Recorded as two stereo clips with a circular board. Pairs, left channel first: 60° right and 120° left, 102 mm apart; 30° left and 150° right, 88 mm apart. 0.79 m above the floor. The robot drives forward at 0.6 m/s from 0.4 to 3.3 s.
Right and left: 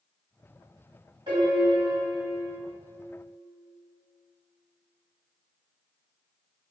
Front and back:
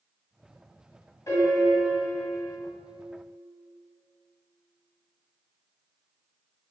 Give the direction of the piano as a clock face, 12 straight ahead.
9 o'clock.